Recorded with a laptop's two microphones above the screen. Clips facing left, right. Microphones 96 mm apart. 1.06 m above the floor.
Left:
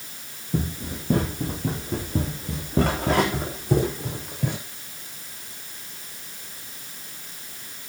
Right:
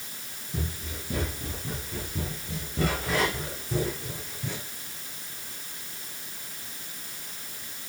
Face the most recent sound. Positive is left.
turn(degrees=70)  # may be behind; listen again after turning